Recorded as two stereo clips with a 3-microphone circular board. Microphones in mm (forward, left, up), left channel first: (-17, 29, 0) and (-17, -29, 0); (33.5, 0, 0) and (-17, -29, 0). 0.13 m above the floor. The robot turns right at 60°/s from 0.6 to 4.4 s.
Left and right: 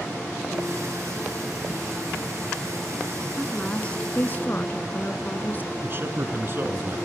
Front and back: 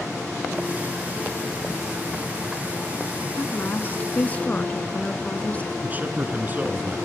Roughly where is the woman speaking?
Ahead.